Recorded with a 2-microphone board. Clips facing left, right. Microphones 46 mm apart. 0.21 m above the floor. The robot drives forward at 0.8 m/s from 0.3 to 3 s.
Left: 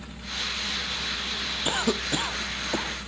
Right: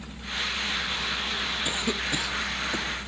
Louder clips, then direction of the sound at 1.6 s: Left 6 dB; 40° left (ahead or behind).